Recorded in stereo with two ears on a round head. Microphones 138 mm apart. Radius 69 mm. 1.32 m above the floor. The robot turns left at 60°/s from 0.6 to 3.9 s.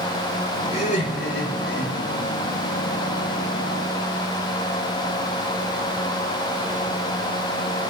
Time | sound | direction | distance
0.7 | laughter | 140° left | 5 m